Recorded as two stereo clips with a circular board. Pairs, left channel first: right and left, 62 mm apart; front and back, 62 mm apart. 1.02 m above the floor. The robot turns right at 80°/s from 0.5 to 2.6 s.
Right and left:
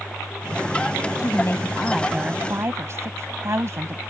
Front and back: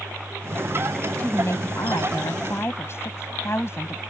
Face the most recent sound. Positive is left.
turn(degrees=45)